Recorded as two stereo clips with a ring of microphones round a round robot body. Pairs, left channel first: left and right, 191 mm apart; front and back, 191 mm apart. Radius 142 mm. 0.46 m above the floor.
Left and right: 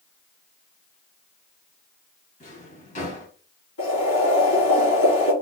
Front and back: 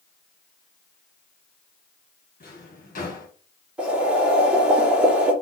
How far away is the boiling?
About 2.5 m.